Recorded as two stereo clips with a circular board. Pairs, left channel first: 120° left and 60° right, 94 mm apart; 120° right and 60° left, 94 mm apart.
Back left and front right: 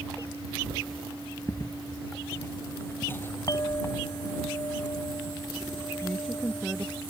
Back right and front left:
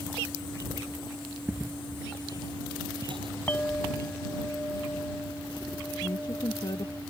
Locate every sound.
1.5 s footsteps: 120° left; by 3.3 s 55° left
3.5 s a clink: 170° left
6.0 s a woman speaking: 150° right